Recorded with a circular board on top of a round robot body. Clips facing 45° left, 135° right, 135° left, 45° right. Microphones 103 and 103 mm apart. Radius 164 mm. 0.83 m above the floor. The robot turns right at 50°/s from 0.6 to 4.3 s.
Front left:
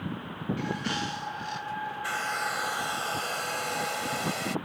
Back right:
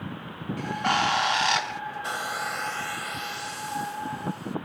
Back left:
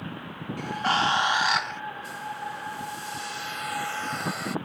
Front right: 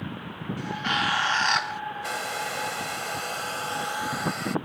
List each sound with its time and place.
0.6 s a bird: 175° left; by 1.8 s 125° right
2.0 s a hair dryer: 65° right; by 4.6 s 45° left